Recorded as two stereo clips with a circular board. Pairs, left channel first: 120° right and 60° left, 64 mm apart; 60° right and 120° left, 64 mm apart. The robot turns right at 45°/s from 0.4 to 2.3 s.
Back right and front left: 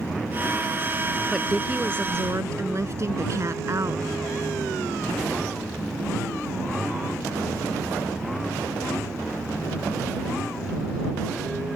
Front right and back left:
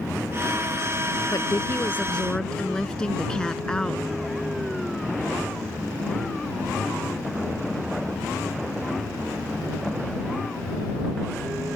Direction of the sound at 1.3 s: 25° right.